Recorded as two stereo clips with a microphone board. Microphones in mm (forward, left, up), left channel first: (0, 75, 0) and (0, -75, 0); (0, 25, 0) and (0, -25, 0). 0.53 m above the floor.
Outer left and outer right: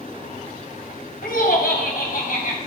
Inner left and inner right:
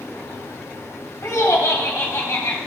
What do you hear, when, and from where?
1.2 s laughter: 70° left (ahead or behind), 3.5 m; by 2.6 s 65° left (ahead or behind), 4 m